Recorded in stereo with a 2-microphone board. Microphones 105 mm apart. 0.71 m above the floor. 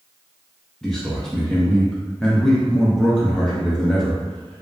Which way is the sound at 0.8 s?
5° left (ahead or behind).